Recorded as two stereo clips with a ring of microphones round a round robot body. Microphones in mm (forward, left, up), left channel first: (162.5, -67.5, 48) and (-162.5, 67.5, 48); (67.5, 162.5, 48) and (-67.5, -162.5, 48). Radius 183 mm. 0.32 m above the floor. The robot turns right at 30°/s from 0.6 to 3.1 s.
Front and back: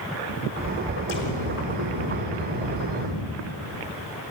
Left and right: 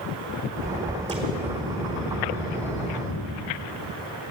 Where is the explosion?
40° right, 4 m; by 3.2 s 20° left, 4 m.